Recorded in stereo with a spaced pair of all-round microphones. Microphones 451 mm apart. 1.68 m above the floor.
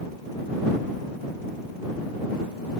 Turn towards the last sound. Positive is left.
No sound to turn to.